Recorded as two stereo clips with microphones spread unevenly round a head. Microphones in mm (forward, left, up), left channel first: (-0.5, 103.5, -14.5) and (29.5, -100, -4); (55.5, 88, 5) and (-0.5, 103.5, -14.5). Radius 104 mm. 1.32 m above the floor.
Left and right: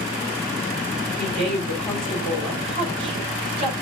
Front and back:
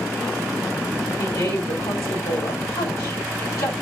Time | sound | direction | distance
1.2 | a woman speaking | 15° right | 4.5 m